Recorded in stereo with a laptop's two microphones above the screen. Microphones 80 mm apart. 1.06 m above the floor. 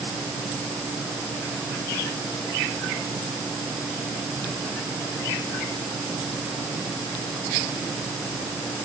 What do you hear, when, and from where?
Only background noise.